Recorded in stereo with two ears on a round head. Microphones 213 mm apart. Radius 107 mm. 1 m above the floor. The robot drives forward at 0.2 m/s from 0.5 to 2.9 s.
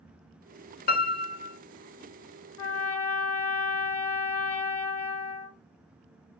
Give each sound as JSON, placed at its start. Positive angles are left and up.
{"t": 0.9, "sound": "a piano", "side_deg": 40, "distance_m": 0.5}
{"t": 2.6, "sound": "a trumpet", "side_deg": 60, "distance_m": 0.8}